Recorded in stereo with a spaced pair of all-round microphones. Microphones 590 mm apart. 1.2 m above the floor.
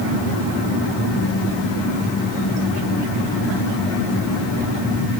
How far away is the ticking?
I don't hear ticking.